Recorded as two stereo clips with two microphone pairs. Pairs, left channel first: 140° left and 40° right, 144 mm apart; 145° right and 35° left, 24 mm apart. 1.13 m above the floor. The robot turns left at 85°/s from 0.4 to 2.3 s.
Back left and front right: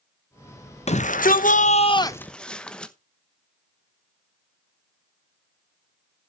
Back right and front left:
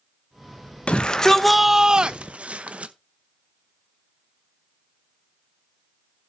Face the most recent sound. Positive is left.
turn(degrees=55)